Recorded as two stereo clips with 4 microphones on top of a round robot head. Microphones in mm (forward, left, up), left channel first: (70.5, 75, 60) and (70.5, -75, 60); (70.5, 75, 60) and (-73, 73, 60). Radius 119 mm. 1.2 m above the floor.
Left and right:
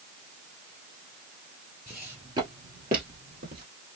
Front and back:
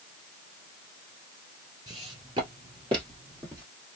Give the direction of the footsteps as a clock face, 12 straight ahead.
6 o'clock.